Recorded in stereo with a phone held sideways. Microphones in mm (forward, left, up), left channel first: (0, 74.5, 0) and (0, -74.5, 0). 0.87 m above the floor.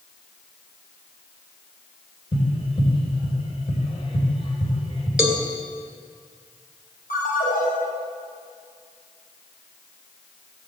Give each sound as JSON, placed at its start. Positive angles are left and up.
{"t": 2.3, "sound": "tapping", "side_deg": 40, "distance_m": 3.0}
{"t": 5.2, "sound": "a cowbell", "side_deg": -5, "distance_m": 1.9}
{"t": 7.1, "sound": "a ringtone", "side_deg": 80, "distance_m": 4.0}